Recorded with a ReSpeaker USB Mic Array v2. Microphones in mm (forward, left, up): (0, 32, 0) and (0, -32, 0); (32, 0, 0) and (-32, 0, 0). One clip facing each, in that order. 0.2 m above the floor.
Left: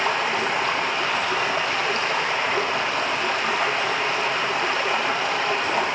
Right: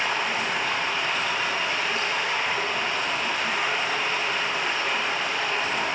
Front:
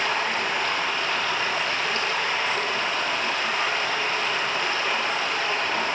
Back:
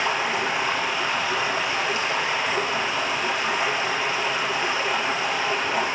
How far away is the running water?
About 6 m.